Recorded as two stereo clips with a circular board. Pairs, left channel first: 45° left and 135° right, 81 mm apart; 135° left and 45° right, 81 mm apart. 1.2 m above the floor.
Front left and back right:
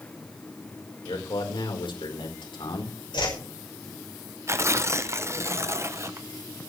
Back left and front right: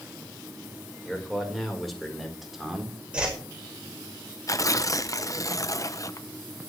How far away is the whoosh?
About 5.5 m.